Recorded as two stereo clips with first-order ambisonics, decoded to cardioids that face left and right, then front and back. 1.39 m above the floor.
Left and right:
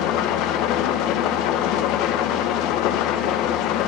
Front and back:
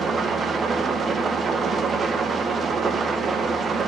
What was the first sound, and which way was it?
An engine running, 115° left.